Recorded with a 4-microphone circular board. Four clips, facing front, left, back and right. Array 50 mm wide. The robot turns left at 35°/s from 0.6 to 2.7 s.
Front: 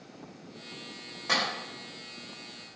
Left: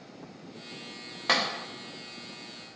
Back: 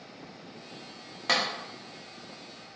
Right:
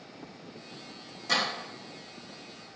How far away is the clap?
About 1.8 m.